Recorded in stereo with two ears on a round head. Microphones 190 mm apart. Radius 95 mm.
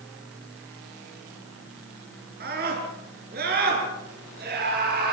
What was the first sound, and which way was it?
A scream, 45° right (ahead or behind).